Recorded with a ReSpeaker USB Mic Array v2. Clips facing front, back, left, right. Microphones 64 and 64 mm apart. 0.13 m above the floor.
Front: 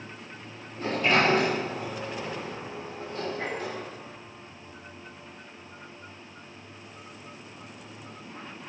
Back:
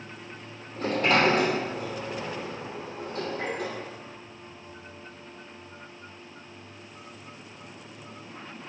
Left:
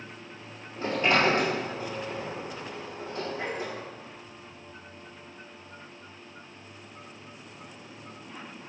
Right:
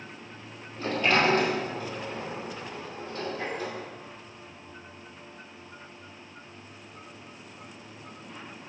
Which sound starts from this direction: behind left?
A sliding door, at 0.8 s.